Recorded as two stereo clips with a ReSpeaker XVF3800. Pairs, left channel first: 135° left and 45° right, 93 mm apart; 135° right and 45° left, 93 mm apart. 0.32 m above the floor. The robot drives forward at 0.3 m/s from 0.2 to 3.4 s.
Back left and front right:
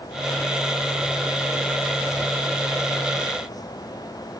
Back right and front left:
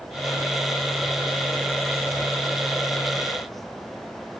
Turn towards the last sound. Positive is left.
No sound to turn to.